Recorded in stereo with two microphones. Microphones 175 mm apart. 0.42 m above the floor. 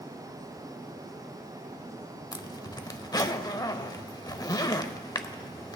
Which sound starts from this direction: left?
A zipper, at 2.3 s.